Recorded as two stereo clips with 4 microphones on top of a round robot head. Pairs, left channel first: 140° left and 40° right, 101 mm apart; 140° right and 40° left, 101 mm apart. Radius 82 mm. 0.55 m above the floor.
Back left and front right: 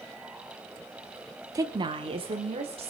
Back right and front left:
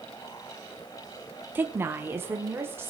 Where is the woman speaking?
15° right, 0.7 m; by 2.9 s 25° right, 2.5 m.